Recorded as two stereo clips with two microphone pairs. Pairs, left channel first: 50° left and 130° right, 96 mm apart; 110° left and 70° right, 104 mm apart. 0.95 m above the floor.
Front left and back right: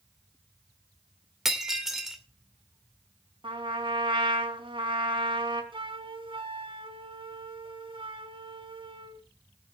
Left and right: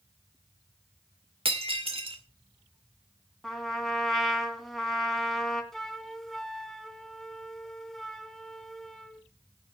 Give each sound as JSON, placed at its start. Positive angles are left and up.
{"t": 1.4, "sound": "breaking glass", "azimuth_deg": -40, "distance_m": 2.0}
{"t": 3.4, "sound": "a trumpet", "azimuth_deg": -160, "distance_m": 3.0}
{"t": 5.7, "sound": "a flute", "azimuth_deg": -160, "distance_m": 1.3}